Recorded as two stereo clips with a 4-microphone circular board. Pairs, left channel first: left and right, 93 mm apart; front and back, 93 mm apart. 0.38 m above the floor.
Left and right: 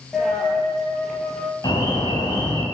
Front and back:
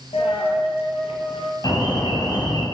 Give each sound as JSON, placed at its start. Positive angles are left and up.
{"t": 0.1, "sound": "a dropped coin", "azimuth_deg": 5, "distance_m": 3.0}
{"t": 1.6, "sound": "an alarm", "azimuth_deg": 45, "distance_m": 4.0}